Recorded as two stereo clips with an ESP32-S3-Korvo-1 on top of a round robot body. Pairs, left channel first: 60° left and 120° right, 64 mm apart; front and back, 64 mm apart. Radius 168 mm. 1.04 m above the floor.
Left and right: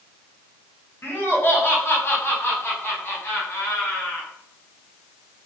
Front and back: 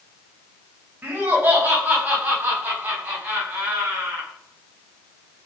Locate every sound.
1.0 s laughter: 115° left, 6.5 m